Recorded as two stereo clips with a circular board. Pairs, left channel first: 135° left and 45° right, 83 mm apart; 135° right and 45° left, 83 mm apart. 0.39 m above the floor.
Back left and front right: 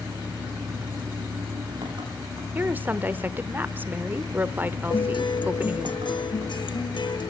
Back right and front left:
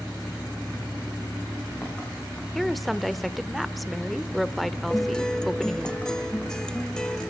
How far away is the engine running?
About 9.5 m.